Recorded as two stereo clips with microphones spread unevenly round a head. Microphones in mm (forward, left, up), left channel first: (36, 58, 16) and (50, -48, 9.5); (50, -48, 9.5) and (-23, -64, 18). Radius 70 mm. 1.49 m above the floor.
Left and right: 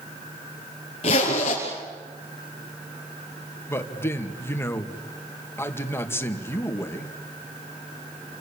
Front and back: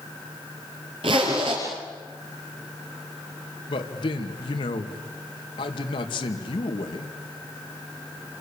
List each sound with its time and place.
1.0 s a zipper: 150° left, 5 m
3.7 s a man speaking: 30° left, 2.5 m